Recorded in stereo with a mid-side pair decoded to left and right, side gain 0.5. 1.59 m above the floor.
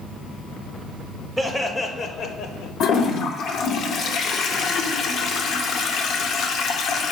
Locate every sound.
1.4 s laughter: 5° right, 0.7 m; by 2.7 s 75° left, 1.1 m
2.8 s a toilet flushing: 60° left, 0.6 m